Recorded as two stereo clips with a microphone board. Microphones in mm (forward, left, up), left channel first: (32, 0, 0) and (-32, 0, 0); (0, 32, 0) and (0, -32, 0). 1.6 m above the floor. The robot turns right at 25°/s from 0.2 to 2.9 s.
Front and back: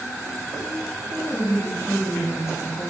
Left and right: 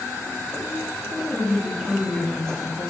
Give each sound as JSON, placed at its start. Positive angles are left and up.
{"t": 1.3, "sound": "a woman speaking", "azimuth_deg": -15, "distance_m": 0.6}